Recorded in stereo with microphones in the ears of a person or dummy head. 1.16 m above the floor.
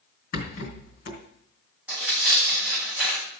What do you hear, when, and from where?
0.3 s a rattle: 60° left (ahead or behind), 3 m
1.9 s tearing paper: 10° right (ahead or behind), 7 m